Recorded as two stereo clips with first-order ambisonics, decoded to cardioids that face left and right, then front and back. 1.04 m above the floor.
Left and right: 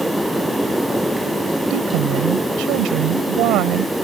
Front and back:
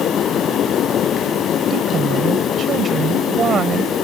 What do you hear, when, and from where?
1.7 s a woman speaking: 120° right